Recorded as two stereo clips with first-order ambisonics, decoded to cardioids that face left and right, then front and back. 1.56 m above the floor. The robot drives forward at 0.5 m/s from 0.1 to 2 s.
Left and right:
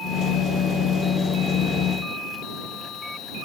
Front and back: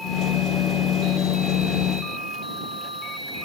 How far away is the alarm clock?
No alarm clock in this recording.